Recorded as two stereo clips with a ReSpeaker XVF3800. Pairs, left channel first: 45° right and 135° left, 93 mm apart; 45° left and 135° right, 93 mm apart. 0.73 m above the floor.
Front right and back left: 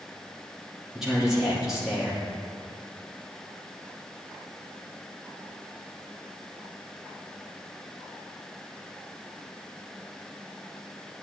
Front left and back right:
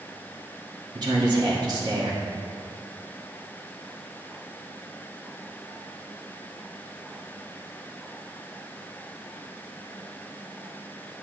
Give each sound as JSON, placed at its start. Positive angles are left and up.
{"t": 0.9, "sound": "a man speaking", "azimuth_deg": -145, "distance_m": 1.6}